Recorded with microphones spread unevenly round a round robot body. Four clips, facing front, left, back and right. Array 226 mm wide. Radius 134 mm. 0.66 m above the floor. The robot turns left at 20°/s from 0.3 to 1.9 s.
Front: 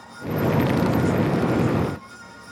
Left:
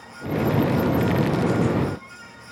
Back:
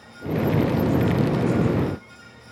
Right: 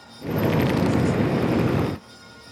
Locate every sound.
Only background noise.